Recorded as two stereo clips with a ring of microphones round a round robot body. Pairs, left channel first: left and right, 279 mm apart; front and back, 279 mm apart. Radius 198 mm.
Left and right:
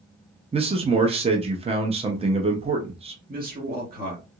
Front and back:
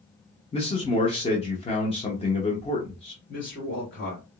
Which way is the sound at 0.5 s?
45° right.